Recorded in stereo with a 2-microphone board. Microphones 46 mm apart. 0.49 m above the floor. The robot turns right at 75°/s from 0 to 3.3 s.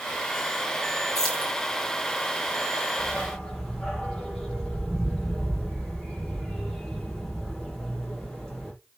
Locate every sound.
1.1 s keys jangling: 5° left (ahead or behind), 5 m; by 1.5 s 35° left (ahead or behind), 5 m
3.0 s a dog barking: 30° left (ahead or behind), 5.5 m; by 8.7 s 10° left (ahead or behind), 5.5 m